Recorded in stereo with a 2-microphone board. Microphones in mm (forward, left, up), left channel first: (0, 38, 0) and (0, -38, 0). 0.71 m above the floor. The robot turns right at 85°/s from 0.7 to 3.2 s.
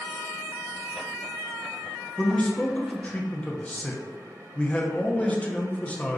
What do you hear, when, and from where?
2.2 s a man speaking: 10° left (ahead or behind), 0.5 m; by 6.2 s 15° left (ahead or behind), 0.5 m